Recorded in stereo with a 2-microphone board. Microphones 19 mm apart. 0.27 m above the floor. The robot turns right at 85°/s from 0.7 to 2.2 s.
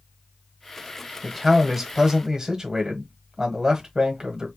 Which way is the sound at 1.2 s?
165° left.